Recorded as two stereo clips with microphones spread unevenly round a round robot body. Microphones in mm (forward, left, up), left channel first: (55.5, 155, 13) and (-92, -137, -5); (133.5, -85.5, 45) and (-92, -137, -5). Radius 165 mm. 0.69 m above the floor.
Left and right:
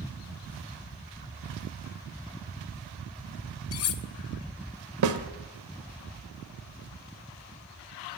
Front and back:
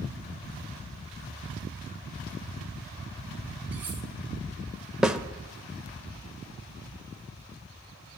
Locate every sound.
3.7 s cutlery clinking: 110° left, 0.8 m
5.0 s a snare drum: 80° right, 0.9 m